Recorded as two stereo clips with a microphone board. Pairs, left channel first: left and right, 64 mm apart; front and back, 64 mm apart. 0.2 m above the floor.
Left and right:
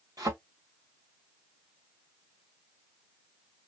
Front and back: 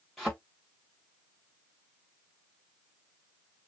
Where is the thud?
85° right, 4.5 m.